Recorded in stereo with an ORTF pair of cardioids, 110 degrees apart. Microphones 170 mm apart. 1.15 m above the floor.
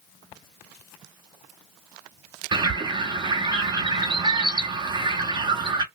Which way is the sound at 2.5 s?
25° right.